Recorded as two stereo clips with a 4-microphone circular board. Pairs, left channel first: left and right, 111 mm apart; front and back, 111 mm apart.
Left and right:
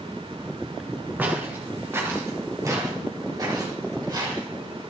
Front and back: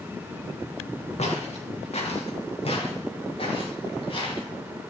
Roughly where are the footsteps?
Ahead.